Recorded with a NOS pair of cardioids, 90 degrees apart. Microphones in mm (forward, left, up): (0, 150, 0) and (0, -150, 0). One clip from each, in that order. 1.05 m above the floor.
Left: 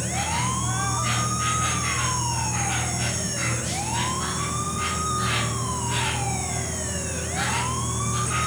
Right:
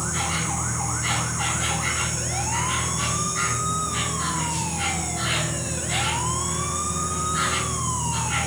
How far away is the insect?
About 2.5 m.